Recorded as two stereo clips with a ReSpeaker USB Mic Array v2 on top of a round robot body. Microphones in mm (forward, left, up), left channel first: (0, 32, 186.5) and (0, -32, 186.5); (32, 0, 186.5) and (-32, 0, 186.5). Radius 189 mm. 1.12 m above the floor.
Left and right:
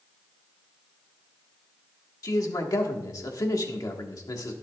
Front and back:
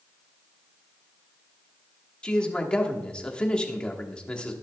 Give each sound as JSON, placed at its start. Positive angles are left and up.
{"t": 2.2, "sound": "a man speaking", "azimuth_deg": 70, "distance_m": 1.7}